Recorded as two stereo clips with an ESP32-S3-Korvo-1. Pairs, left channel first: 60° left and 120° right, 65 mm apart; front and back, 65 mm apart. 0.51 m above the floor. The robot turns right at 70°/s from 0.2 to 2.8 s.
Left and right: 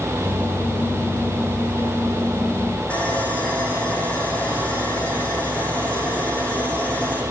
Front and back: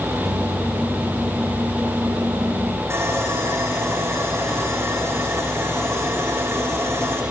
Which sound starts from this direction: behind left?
Sawing, at 2.9 s.